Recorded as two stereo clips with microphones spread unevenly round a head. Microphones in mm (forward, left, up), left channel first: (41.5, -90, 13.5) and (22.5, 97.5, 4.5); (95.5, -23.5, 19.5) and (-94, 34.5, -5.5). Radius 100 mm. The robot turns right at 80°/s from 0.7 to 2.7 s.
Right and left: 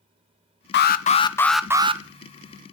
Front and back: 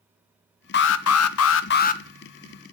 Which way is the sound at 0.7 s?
60° right.